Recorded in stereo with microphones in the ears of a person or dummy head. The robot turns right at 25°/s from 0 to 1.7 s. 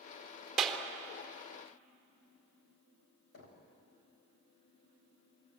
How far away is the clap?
About 3.5 m.